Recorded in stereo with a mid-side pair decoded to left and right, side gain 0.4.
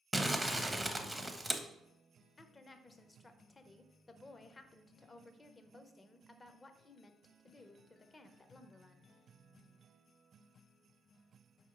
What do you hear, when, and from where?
0.1 s crumpling: 5° right, 0.5 m
2.4 s a woman speaking: 30° left, 0.5 m